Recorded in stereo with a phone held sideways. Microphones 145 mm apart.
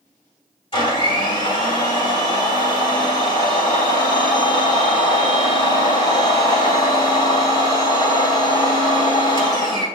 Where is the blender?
35° left (ahead or behind), 2.5 m.